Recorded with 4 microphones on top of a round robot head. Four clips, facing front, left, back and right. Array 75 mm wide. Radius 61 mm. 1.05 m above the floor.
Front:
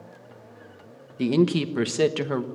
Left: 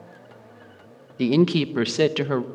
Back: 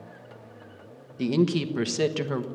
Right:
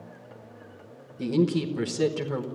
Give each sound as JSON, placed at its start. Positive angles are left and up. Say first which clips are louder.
{"t": 1.2, "sound": "a woman speaking", "louder": "left 5 dB, front 3 dB", "azimuth_deg": 70, "distance_m": 1.4}